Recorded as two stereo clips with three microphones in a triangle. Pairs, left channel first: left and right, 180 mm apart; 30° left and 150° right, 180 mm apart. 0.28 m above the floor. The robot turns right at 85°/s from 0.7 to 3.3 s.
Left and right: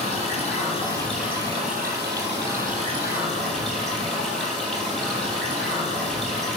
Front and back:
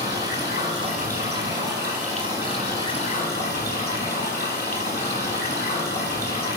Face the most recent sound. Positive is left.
turn(degrees=0)